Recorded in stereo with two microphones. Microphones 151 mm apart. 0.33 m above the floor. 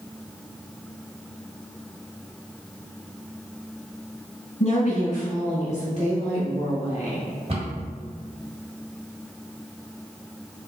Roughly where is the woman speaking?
Left.